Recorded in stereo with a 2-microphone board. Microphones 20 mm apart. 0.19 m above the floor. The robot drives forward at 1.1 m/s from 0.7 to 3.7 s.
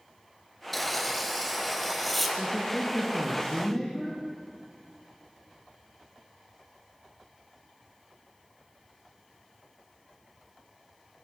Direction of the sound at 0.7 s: 5° left (ahead or behind).